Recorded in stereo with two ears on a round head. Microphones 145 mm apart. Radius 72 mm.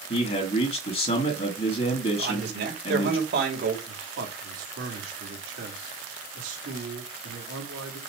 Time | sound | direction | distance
0.1 | a man speaking | 35° left (ahead or behind) | 2.5 m
2.2 | a man speaking | 70° right (ahead or behind) | 3 m
3.9 | a man speaking | 85° right | 3 m